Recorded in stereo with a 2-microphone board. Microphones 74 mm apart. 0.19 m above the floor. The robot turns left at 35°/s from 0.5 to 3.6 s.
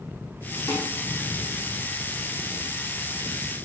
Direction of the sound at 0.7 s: 60° left (ahead or behind).